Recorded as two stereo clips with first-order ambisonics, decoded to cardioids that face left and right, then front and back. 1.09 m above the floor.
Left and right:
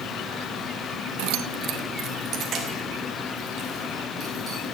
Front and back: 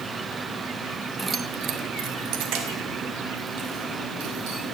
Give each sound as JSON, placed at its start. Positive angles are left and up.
{"t": 1.2, "sound": "keys jangling", "azimuth_deg": -90, "distance_m": 0.6}